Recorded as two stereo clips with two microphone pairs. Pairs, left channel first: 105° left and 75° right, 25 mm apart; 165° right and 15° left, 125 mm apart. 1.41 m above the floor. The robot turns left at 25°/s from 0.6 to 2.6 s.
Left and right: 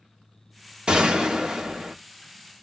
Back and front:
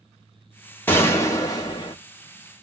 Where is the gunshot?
100° right, 1.0 m; by 1.9 s 130° right, 1.0 m.